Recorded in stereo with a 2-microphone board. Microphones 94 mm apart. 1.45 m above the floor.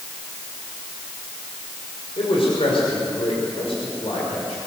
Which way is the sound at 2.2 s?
90° left.